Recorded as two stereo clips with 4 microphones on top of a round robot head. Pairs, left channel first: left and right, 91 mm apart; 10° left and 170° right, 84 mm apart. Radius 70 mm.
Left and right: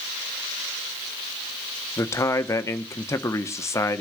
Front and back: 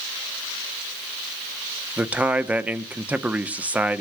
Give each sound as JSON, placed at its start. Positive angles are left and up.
{"t": 2.0, "sound": "a man speaking", "azimuth_deg": 125, "distance_m": 1.1}